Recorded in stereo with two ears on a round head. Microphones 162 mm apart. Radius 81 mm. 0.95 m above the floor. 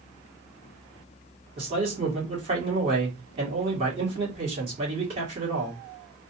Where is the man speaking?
30° right (ahead or behind), 2 m.